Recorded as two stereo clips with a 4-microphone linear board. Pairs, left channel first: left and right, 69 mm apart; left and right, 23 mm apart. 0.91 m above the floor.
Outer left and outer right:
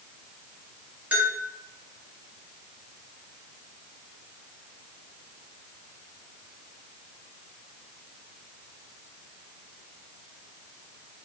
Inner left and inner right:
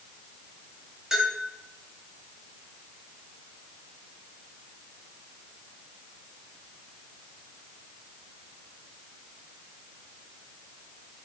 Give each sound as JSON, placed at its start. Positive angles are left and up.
{"t": 1.1, "sound": "a bell", "side_deg": -20, "distance_m": 1.0}